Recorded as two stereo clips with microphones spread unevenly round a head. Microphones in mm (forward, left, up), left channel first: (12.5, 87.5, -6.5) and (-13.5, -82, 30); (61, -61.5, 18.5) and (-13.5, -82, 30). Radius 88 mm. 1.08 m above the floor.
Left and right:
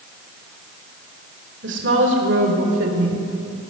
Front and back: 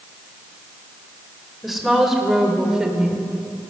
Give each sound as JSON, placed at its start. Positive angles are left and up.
{"t": 1.6, "sound": "a woman speaking", "azimuth_deg": -80, "distance_m": 4.5}